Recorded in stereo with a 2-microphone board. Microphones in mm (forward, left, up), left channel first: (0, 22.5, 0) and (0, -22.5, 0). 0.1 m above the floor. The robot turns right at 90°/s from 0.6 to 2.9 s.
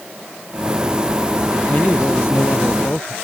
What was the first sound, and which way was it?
A man speaking, 30° left.